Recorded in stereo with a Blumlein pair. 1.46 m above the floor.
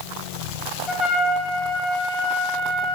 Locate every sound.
0.9 s a trumpet: 25° left, 0.8 m